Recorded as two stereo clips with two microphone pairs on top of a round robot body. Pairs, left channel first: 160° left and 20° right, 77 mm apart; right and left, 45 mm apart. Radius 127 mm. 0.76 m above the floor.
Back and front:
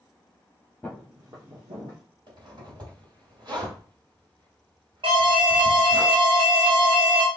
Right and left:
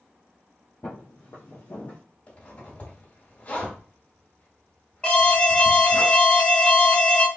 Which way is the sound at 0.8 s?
120° right.